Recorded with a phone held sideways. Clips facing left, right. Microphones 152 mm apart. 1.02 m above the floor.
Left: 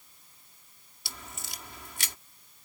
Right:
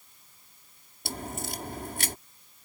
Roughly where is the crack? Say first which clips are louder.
Right 11 dB; right.